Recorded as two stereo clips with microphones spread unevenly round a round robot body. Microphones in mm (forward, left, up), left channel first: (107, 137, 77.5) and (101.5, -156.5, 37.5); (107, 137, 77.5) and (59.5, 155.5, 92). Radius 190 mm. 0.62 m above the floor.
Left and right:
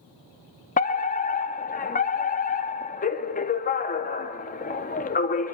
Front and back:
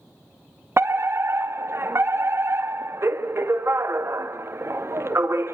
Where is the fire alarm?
145° left, 1.9 m.